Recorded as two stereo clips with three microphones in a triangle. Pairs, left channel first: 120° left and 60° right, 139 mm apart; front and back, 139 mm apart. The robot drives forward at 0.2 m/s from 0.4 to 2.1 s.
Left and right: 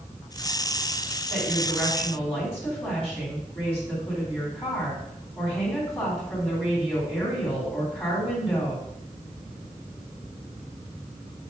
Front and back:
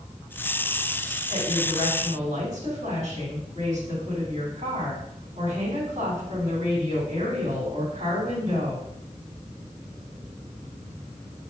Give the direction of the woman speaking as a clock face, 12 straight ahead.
5 o'clock.